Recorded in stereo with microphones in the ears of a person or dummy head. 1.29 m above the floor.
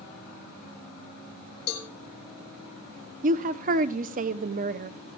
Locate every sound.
1.7 s a cowbell: 80° left, 1.6 m
3.2 s a woman speaking: 50° right (ahead or behind), 0.7 m